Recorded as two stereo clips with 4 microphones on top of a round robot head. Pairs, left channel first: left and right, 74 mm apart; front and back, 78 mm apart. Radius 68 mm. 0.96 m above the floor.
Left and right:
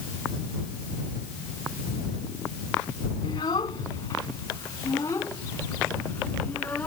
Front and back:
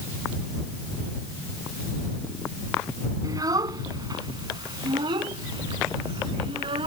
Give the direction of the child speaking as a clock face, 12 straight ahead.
7 o'clock.